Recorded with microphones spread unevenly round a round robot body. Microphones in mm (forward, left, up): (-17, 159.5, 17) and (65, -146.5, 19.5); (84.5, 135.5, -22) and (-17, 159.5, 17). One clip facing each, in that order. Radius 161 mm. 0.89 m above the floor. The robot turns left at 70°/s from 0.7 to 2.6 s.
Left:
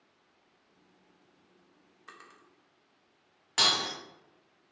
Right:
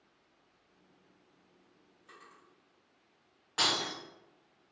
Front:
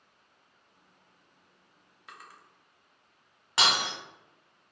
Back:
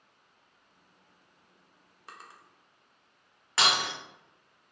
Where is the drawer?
120° left, 0.7 m; by 2.4 s 95° left, 0.7 m.